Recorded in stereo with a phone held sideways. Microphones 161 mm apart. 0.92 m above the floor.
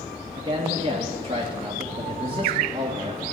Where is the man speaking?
30° right (ahead or behind), 1.2 m.